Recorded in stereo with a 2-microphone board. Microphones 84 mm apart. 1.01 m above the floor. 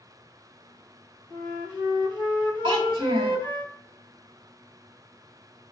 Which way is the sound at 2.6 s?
80° right.